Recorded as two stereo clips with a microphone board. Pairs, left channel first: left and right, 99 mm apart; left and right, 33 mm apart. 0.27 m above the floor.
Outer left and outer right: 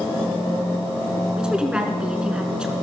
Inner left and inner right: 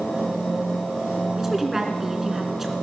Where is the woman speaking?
10° right (ahead or behind), 4 m.